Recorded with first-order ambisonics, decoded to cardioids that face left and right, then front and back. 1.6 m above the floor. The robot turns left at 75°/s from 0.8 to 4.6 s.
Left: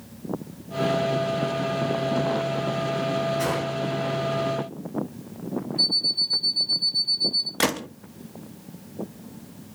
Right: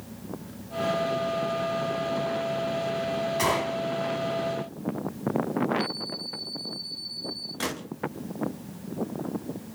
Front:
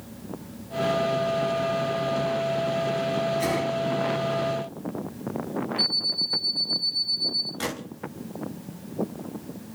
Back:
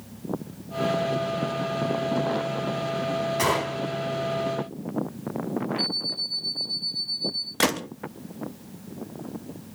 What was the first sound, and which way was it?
A gunshot, 145° right.